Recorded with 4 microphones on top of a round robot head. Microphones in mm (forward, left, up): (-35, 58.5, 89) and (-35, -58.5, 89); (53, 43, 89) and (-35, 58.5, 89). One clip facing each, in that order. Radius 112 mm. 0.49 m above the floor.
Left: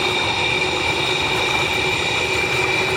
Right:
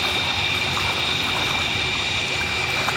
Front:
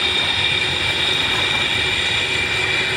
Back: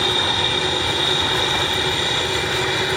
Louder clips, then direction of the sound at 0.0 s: Left 6 dB, back 3 dB; 115° left.